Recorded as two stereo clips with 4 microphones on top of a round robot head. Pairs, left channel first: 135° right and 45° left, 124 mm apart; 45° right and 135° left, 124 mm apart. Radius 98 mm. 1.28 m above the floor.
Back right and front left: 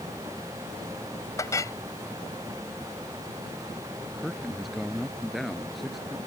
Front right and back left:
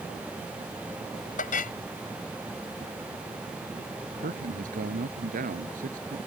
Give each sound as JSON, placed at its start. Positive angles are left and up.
{"t": 1.4, "sound": "a clink", "azimuth_deg": -65}
{"t": 4.1, "sound": "a man speaking", "azimuth_deg": 135}